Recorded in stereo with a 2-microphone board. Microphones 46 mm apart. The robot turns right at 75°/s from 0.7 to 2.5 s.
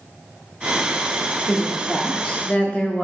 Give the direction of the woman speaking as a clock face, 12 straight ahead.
1 o'clock.